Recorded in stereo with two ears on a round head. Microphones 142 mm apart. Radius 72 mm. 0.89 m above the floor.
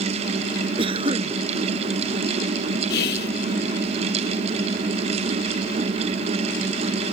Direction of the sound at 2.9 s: 65° left (ahead or behind).